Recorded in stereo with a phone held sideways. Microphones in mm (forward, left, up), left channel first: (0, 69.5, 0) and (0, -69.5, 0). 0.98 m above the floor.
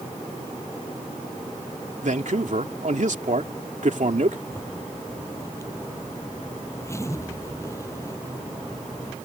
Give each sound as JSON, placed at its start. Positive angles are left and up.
{"t": 2.0, "sound": "a man speaking", "side_deg": -70}
{"t": 4.5, "sound": "a zipper", "side_deg": 20}